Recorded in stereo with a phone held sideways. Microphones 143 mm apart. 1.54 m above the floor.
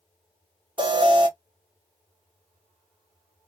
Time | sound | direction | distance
0.8 | an alarm | 35° right (ahead or behind) | 0.7 m